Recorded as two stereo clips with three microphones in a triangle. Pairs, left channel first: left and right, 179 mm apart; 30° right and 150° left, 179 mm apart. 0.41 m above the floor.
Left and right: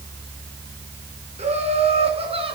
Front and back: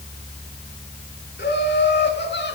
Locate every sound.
1.4 s laughter: 40° right, 5 m; by 2.6 s 30° right, 4.5 m